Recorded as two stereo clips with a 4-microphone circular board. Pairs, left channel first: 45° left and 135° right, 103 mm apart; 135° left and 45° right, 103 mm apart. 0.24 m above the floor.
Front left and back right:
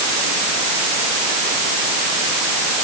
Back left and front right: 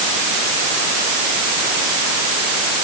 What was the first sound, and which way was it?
Only background noise.